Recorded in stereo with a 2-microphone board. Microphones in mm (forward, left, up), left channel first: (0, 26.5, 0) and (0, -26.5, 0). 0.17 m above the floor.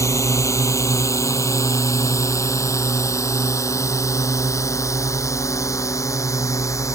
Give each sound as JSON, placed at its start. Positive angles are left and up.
{"t": 0.0, "sound": "a drone", "side_deg": 70}